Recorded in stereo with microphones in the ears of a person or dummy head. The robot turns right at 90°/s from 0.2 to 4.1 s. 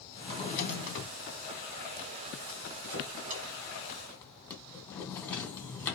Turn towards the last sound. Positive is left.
turn(degrees=10)  # may be behind; listen again after turning